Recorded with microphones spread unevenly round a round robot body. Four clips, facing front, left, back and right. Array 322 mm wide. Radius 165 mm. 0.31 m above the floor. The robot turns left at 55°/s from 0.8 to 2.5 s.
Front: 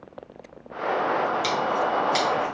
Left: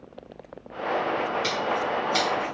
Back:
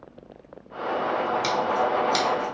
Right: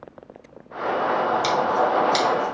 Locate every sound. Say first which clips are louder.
1.4 s scissors: right 6 dB, back 1 dB; 105° right, 1.1 m; by 2.5 s 165° right, 1.1 m